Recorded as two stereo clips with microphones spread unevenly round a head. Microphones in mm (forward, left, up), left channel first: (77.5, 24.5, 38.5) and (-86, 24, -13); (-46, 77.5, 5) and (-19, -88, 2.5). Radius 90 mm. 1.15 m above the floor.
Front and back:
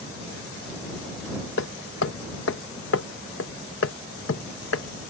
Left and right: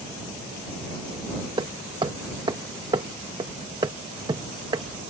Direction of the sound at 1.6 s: 10° right.